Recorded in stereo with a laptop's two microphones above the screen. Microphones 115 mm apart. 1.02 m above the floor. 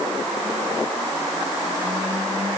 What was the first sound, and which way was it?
Only background noise.